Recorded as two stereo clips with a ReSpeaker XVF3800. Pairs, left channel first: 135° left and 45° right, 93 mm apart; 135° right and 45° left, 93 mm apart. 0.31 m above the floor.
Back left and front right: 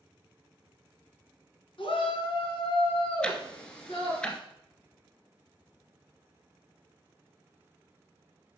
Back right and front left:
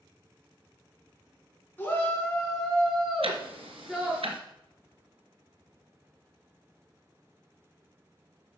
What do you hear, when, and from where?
1.8 s a shout: 155° left, 3.5 m; by 4.2 s 125° left, 4.5 m
3.2 s ticking: 55° left, 1.6 m